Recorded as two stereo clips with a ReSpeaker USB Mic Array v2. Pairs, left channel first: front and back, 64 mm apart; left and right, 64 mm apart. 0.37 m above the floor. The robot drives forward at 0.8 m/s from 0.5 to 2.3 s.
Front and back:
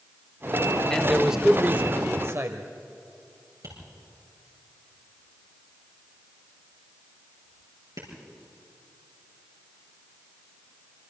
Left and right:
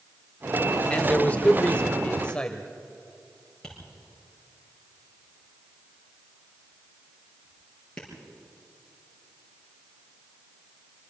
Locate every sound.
0.9 s a man speaking: 60° left, 0.9 m; by 2.7 s 160° left, 1.3 m
3.6 s tapping: 170° left, 6.5 m